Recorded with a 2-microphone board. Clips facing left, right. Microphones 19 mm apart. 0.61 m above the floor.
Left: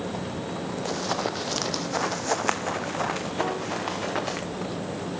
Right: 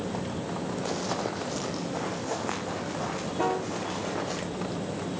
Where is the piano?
25° right (ahead or behind), 1.4 m.